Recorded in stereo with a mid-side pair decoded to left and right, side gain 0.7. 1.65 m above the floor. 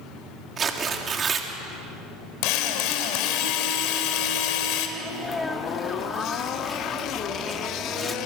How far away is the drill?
About 3.5 m.